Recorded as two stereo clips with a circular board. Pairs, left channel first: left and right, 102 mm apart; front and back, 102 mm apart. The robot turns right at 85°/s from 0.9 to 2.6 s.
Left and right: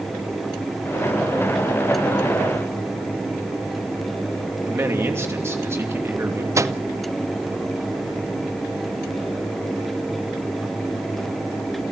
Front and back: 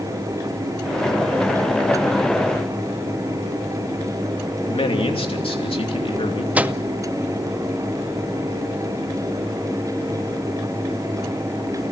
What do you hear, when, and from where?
4.6 s a man speaking: 25° right, 3 m
6.5 s a microwave: 120° right, 0.5 m